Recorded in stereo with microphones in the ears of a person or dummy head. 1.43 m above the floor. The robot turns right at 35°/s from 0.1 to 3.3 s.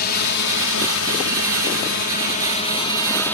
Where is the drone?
55° left; by 3.4 s 170° left.